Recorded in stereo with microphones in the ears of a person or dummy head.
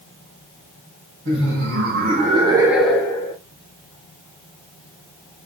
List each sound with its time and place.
1.2 s laughter: 60° right (ahead or behind), 1.9 m; by 3.4 s 35° left (ahead or behind), 1.2 m